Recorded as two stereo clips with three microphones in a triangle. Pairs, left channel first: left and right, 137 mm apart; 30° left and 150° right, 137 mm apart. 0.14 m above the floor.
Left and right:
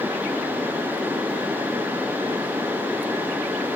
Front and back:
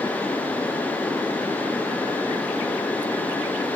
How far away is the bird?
No bird in this recording.